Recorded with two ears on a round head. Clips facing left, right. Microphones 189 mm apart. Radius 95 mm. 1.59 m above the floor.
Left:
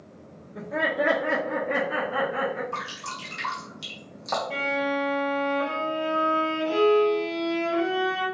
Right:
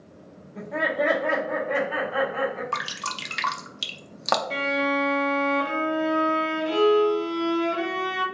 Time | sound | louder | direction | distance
0.6 | laughter | right 1 dB | 15° left (ahead or behind) | 1.3 m
2.7 | dripping | right 2 dB | 70° right (ahead or behind) | 0.5 m
4.5 | a violin | even | 30° right (ahead or behind) | 1.7 m